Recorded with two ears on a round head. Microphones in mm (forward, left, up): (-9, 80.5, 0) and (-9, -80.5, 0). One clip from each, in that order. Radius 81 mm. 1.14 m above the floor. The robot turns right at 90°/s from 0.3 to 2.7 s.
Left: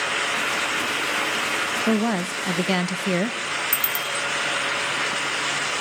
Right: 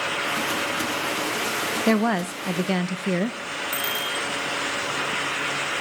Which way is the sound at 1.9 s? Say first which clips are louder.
Right 1 dB; 50° right.